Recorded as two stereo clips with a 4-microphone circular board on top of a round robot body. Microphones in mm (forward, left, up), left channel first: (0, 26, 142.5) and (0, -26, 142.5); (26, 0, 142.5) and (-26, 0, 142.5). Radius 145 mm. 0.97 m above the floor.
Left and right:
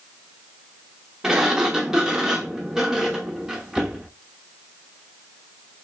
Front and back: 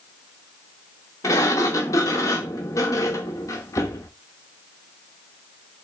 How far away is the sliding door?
About 0.7 m.